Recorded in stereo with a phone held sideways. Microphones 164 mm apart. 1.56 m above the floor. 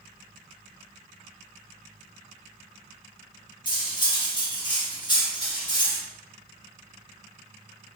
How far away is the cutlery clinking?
About 1.2 m.